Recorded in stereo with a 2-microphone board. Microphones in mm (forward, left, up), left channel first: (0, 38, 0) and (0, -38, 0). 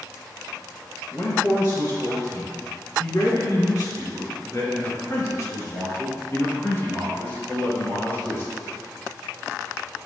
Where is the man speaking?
45° left (ahead or behind), 2 m; by 8.5 s 30° left (ahead or behind), 4 m.